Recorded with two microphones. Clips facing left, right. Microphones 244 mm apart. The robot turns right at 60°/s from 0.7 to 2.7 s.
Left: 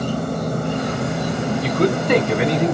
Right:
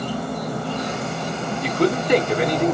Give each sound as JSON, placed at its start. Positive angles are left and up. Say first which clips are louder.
{"t": 0.0, "sound": "an insect", "louder": "left 4 dB", "azimuth_deg": 50, "distance_m": 1.5}
{"t": 1.6, "sound": "a man speaking", "louder": "even", "azimuth_deg": 45, "distance_m": 2.0}